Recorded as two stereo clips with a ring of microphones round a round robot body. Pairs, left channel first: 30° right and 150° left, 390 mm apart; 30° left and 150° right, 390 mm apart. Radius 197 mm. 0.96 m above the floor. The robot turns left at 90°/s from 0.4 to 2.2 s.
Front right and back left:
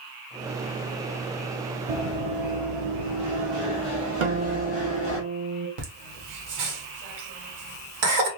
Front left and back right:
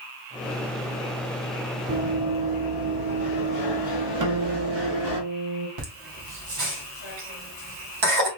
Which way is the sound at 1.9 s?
155° left.